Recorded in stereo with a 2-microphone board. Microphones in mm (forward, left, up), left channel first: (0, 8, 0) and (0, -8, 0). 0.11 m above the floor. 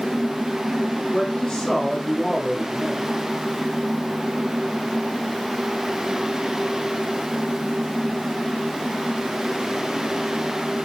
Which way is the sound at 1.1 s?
60° left (ahead or behind).